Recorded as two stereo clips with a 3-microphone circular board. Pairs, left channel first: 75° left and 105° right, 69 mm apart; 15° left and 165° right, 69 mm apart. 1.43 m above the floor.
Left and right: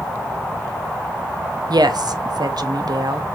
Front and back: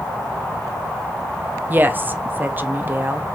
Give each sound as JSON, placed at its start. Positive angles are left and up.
{"t": 1.7, "sound": "a woman speaking", "azimuth_deg": -105, "distance_m": 1.1}